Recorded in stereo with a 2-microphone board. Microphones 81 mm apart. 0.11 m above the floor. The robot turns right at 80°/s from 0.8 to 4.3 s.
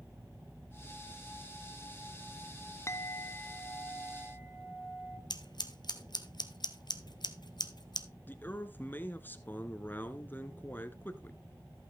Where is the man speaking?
25° left (ahead or behind), 1.2 m.